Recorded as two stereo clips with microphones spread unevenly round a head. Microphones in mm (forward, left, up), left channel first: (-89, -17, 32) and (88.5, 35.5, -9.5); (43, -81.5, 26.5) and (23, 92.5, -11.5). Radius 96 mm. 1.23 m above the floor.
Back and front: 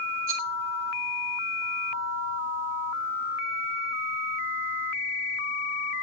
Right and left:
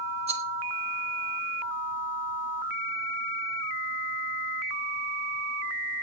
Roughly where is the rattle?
Ahead left.